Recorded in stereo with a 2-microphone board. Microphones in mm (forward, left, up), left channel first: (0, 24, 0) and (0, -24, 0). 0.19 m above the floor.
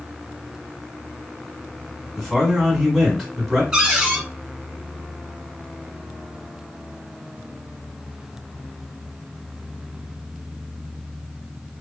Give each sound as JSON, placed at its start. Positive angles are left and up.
{"t": 2.2, "sound": "a man speaking", "side_deg": -5, "distance_m": 1.5}
{"t": 3.7, "sound": "a cupboard door", "side_deg": -10, "distance_m": 1.1}